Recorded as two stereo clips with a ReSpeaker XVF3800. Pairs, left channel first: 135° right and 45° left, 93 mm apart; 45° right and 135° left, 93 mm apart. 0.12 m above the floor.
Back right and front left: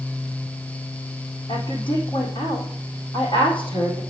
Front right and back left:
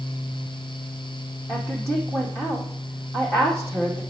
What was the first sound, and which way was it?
A woman speaking, 165° right.